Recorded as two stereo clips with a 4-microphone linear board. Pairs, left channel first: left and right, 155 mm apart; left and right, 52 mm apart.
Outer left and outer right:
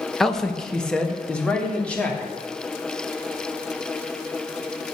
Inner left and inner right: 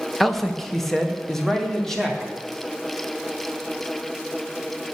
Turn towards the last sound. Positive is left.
turn(degrees=10)  # may be behind; listen again after turning